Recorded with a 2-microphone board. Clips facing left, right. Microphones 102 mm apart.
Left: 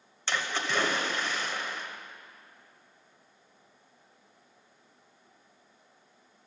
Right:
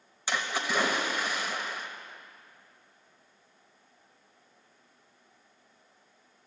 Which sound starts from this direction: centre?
A splash, at 0.3 s.